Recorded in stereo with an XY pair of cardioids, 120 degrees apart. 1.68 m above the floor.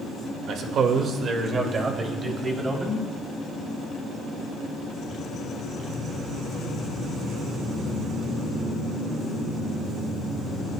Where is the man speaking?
70° right, 2.0 m; by 3.0 s 20° right, 3.5 m.